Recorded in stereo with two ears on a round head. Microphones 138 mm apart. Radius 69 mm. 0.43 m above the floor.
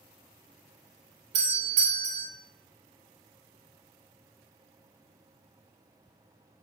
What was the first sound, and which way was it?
A doorbell, 50° right (ahead or behind).